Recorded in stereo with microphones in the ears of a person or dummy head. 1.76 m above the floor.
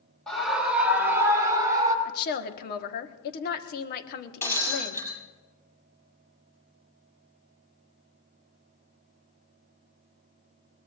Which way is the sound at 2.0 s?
50° left (ahead or behind).